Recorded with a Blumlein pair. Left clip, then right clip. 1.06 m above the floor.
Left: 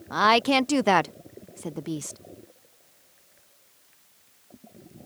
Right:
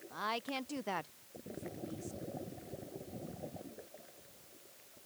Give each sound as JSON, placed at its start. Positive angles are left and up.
{"t": 0.1, "sound": "a woman speaking", "azimuth_deg": 50}